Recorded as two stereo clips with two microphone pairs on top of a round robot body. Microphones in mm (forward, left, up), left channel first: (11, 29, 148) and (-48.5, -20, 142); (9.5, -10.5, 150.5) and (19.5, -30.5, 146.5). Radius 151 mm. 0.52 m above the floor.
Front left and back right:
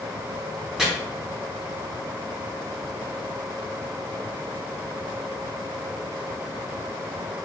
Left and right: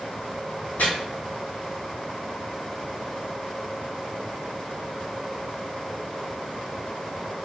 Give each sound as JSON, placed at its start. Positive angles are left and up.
{"t": 0.8, "sound": "chopping", "azimuth_deg": 135, "distance_m": 0.8}